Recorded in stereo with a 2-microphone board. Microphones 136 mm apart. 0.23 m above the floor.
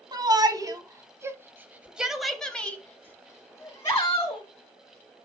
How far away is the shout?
About 1.4 m.